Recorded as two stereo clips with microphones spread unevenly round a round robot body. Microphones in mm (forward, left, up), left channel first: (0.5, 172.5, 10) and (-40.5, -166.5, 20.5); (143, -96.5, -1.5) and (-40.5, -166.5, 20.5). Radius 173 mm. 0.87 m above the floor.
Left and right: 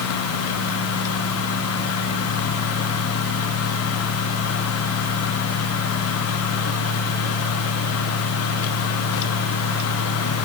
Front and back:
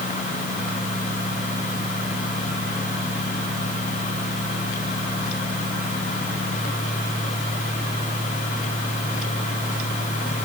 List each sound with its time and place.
Only background noise.